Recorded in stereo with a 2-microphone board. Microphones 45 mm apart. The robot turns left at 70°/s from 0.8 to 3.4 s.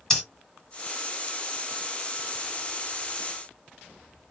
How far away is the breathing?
About 1.9 m.